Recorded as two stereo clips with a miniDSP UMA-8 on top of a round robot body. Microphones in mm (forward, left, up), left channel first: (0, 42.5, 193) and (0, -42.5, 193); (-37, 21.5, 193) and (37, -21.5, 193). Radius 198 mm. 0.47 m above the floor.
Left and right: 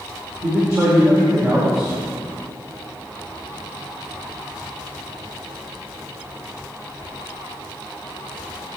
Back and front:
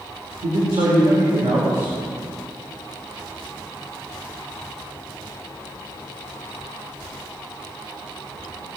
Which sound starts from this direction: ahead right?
A man speaking, at 0.4 s.